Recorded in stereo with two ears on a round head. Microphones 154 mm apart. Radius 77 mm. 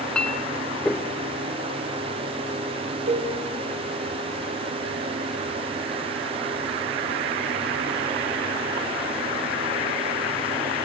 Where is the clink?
5° left (ahead or behind), 0.9 m.